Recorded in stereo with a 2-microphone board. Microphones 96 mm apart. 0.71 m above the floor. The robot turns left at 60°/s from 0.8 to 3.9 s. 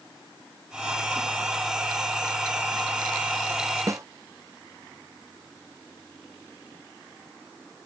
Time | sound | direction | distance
3.9 | a snare drum | 35° right (ahead or behind) | ?